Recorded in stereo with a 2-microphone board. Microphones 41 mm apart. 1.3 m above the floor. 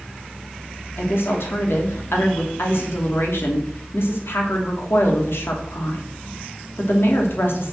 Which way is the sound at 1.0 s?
75° left (ahead or behind).